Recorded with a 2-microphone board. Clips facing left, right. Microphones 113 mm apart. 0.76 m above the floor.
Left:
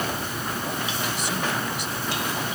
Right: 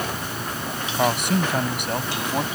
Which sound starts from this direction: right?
A man speaking, at 0.9 s.